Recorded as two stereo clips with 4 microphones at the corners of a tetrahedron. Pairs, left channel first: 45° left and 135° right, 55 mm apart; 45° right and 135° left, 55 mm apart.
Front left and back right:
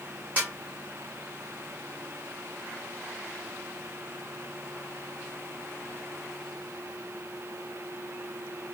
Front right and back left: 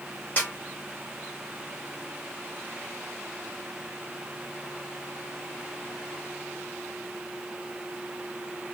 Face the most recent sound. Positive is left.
turn(degrees=-90)